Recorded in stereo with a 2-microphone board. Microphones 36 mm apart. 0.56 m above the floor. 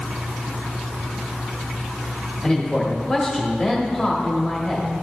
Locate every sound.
2.4 s a man speaking: 5° right (ahead or behind), 1.3 m